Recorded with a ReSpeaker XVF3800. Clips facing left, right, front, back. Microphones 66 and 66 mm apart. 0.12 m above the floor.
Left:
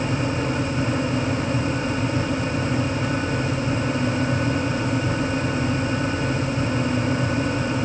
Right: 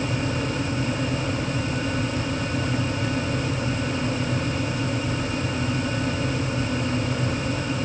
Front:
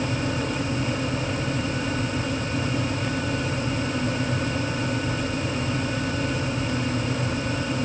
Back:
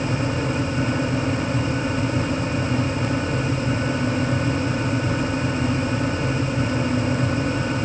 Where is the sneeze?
No sneeze in this recording.